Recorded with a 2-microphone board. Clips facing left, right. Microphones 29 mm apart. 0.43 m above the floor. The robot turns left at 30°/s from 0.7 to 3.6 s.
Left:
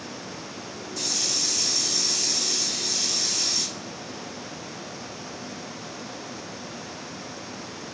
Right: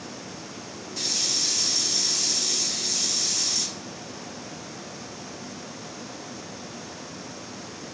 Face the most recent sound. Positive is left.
turn(degrees=130)